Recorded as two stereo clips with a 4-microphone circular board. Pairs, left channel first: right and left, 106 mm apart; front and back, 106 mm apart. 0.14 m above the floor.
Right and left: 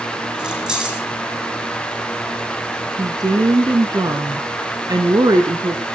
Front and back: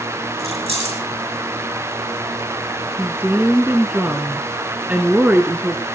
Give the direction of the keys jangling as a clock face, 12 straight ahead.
6 o'clock.